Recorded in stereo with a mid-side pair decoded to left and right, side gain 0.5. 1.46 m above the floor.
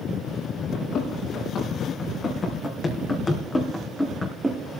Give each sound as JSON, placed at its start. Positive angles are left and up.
{"t": 0.7, "sound": "running footsteps", "azimuth_deg": 65, "distance_m": 5.5}